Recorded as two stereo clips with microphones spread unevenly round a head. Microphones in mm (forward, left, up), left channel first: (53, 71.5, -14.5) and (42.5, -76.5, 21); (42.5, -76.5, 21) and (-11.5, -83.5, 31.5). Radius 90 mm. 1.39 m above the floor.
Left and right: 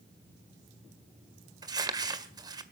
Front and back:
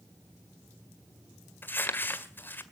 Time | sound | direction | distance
1.6 | crumpling | 45° right | 1.7 m